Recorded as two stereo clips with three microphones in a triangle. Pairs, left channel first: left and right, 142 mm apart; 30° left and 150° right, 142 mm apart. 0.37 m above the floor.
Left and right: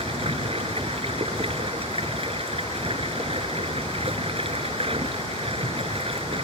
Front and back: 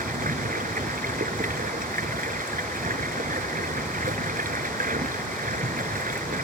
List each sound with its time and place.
0.0 s running water: 140° right